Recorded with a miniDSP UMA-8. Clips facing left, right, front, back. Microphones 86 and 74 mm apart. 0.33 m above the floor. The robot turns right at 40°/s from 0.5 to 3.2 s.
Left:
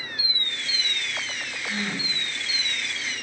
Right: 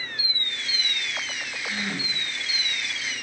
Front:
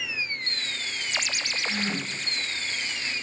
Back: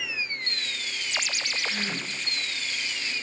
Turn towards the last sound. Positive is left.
turn(degrees=110)